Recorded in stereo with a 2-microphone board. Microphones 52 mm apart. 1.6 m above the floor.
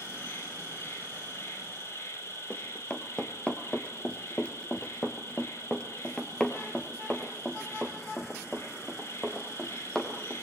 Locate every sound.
0.0 s an insect: 60° left (ahead or behind), 6 m
2.5 s running footsteps: 20° left (ahead or behind), 2.0 m; by 10.4 s 5° left (ahead or behind), 3.5 m